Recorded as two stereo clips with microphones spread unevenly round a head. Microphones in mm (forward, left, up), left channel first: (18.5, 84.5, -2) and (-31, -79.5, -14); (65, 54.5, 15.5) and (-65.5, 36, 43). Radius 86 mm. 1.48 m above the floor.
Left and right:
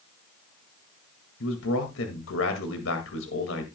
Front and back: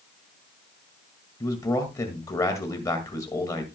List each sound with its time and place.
1.4 s a man speaking: 70° left, 2 m